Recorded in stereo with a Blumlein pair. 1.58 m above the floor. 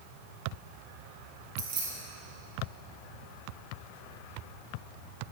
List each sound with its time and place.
1.6 s keys jangling: 50° right, 3 m